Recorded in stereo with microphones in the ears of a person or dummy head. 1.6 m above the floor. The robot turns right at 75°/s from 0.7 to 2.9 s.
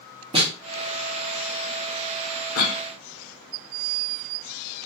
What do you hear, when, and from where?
0.3 s a snare drum: 25° right (ahead or behind), 0.6 m
2.5 s a cough: 60° left (ahead or behind), 0.6 m; by 2.8 s 35° left (ahead or behind), 0.6 m